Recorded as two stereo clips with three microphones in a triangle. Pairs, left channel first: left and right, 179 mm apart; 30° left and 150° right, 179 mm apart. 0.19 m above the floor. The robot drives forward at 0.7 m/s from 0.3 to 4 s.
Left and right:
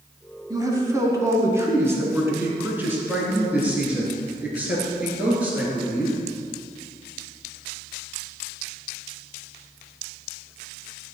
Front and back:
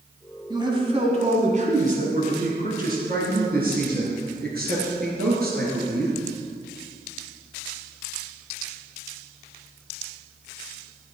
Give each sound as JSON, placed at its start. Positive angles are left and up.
{"t": 0.5, "sound": "a man speaking", "azimuth_deg": -125, "distance_m": 1.4}